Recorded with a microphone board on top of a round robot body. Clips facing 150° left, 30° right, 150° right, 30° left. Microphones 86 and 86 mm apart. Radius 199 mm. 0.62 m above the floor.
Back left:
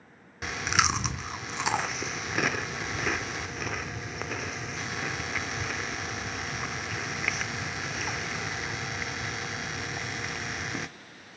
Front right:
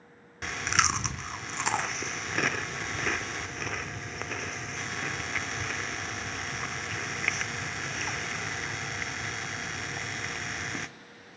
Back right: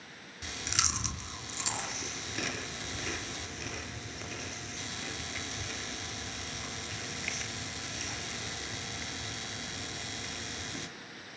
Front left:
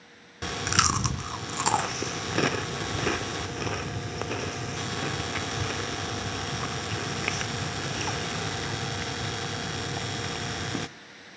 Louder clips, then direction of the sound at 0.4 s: Back left 1 dB, front left 11 dB; 65° left.